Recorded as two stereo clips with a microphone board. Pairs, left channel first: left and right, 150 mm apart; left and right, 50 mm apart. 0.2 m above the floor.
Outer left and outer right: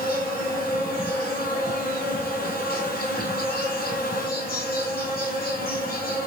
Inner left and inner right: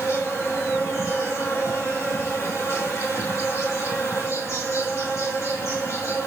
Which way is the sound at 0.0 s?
70° left (ahead or behind).